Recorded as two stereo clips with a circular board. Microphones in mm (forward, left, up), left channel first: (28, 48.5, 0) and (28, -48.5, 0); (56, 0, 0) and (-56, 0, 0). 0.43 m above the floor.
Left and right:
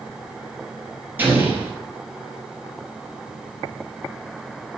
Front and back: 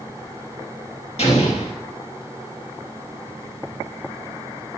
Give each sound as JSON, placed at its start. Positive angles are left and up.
{"t": 1.2, "sound": "an explosion", "azimuth_deg": -20, "distance_m": 4.0}